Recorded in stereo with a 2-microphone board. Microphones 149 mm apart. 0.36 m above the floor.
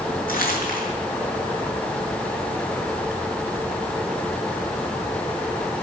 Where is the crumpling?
75° left (ahead or behind), 5.5 m.